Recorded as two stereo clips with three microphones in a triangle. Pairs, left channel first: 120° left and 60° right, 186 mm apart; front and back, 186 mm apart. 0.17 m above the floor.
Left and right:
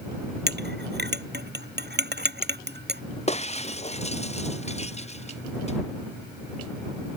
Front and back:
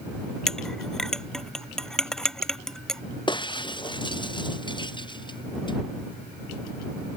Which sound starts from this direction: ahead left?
Breaking glass, at 3.3 s.